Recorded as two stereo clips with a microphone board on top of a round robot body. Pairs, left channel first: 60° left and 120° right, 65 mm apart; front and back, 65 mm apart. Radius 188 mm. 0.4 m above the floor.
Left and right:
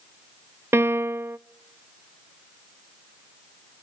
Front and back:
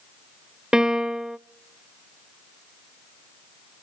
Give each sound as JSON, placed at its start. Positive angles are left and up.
{"t": 0.7, "sound": "a piano", "azimuth_deg": -105, "distance_m": 0.7}